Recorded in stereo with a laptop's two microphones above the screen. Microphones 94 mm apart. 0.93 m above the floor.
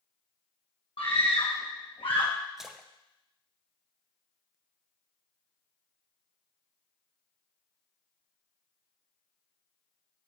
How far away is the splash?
About 0.6 m.